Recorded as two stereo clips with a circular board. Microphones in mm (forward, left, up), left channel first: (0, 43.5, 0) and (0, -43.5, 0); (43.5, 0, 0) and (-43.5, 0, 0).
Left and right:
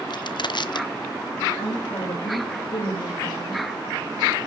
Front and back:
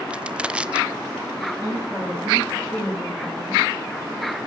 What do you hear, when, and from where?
0.1 s crushing: 105° left, 0.6 m
1.6 s a woman speaking: 80° left, 6.5 m